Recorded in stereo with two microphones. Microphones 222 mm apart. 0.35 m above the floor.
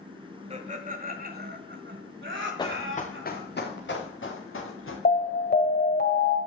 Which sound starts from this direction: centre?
Running footsteps, at 2.6 s.